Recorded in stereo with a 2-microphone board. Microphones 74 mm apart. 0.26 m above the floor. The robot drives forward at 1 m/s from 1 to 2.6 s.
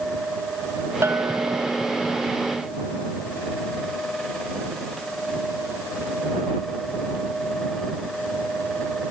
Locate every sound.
1.0 s a bell: 35° right (ahead or behind), 0.8 m; by 1.7 s 80° right, 0.5 m